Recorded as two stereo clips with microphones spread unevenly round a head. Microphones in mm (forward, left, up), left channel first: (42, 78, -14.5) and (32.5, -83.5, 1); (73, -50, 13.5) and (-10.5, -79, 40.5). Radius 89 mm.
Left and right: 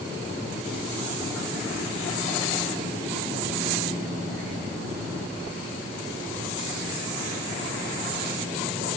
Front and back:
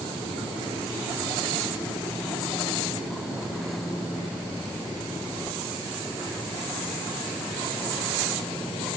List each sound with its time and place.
Only background noise.